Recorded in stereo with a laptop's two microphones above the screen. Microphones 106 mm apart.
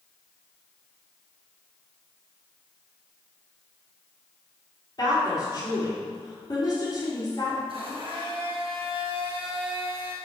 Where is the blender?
55° right (ahead or behind), 4 m.